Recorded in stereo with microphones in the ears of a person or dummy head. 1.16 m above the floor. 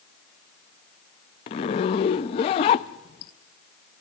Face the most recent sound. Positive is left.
turn(degrees=25)  # may be behind; listen again after turning